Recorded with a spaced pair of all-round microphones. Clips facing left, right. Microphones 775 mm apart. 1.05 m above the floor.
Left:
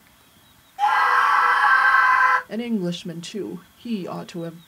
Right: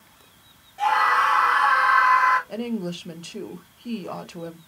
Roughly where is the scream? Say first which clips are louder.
Left 2 dB; centre.